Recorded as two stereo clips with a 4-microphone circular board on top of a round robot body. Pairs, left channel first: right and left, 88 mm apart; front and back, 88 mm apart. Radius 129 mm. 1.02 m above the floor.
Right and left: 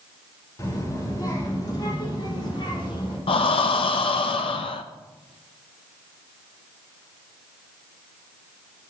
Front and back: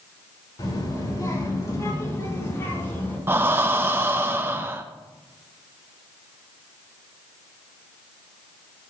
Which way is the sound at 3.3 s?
115° right.